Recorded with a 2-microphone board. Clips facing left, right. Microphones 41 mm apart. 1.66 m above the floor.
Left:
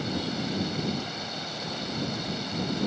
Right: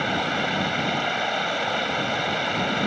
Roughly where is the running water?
Right.